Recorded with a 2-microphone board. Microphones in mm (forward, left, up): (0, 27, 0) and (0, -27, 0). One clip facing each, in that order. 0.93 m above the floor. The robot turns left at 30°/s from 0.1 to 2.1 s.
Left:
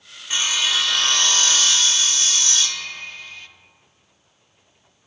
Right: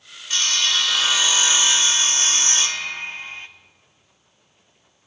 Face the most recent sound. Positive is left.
turn(degrees=-35)